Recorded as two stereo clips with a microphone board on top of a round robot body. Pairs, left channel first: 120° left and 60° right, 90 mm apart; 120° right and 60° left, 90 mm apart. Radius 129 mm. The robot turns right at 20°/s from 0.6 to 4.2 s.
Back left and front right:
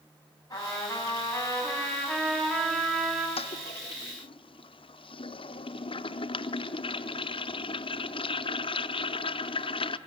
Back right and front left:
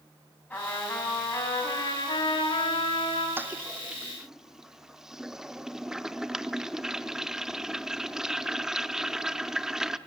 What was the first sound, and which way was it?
A trumpet, 165° left.